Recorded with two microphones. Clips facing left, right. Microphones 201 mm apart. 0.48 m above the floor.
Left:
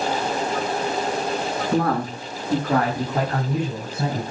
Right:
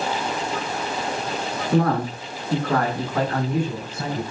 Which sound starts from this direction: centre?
A man speaking, at 1.7 s.